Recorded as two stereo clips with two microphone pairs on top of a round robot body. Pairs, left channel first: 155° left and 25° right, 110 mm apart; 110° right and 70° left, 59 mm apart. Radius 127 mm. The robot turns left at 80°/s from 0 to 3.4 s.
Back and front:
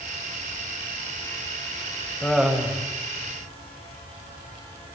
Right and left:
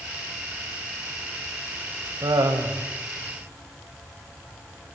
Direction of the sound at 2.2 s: 80° left.